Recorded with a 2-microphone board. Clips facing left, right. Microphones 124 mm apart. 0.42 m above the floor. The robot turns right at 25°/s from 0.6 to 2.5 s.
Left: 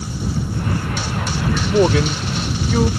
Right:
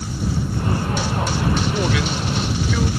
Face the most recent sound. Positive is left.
turn(degrees=45)  # may be behind; listen again after turning